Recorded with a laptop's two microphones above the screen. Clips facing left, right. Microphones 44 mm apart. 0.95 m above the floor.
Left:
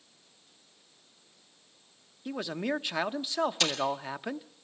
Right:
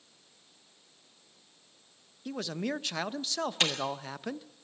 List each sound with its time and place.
2.2 s a man speaking: 15° left (ahead or behind), 0.8 m
3.6 s a camera shutter: 35° right (ahead or behind), 8 m